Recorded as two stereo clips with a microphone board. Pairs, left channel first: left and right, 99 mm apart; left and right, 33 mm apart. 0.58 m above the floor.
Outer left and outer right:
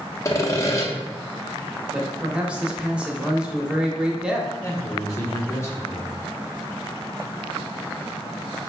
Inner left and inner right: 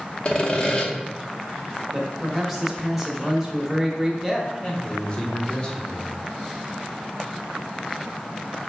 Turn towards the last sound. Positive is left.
turn(degrees=25)  # may be behind; listen again after turning